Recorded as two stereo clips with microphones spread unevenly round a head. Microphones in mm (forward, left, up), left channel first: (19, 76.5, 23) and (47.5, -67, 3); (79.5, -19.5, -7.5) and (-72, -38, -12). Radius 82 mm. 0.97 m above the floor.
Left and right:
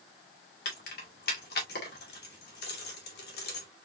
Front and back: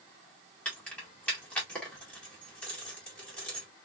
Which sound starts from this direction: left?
Keys jangling, at 0.7 s.